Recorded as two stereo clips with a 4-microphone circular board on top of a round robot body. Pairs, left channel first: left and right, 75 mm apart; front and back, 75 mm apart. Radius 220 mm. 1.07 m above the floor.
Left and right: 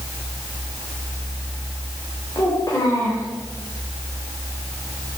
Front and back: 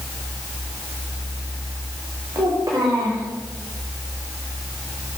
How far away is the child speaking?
About 3.5 m.